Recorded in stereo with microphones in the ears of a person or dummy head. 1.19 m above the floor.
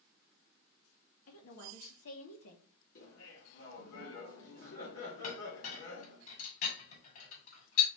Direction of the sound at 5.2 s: 50° left (ahead or behind).